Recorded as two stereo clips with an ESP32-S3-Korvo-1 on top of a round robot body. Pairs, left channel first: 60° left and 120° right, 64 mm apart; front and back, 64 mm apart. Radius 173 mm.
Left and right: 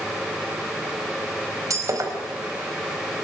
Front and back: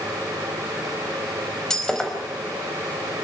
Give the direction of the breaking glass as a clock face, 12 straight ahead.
3 o'clock.